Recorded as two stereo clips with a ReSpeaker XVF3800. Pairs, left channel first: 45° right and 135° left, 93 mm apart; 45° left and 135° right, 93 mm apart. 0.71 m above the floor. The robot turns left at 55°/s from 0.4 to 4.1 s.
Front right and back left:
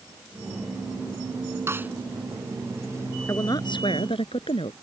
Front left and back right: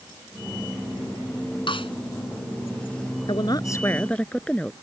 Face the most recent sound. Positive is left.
turn(degrees=-30)